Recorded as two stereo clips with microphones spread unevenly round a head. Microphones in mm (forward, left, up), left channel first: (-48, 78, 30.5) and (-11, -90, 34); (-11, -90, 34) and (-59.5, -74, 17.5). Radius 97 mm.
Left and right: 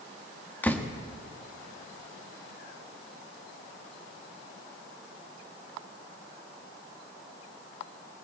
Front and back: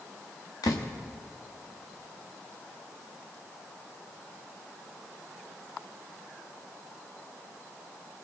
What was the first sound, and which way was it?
A door slam, 20° left.